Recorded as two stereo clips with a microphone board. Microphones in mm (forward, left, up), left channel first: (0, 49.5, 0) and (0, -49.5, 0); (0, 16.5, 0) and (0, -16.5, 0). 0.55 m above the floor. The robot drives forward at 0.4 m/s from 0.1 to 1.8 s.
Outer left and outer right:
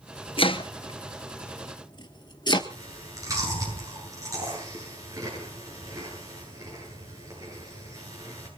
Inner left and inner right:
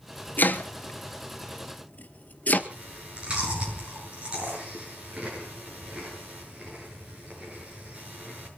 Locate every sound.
0.4 s chopping: 65° left (ahead or behind), 1.4 m; by 2.6 s 50° left (ahead or behind), 1.6 m
2.7 s chewing: 35° right (ahead or behind), 9 m